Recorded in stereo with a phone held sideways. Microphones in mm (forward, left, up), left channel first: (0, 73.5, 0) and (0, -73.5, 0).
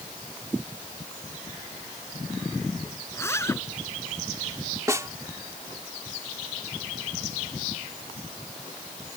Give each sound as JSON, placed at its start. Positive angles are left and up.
{"t": 3.1, "sound": "a zipper", "side_deg": 15}
{"t": 4.9, "sound": "a snare drum", "side_deg": -20}